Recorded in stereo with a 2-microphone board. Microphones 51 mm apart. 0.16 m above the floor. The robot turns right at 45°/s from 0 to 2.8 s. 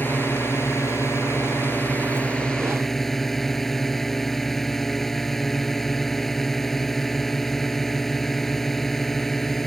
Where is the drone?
50° left; by 9.7 s 175° left.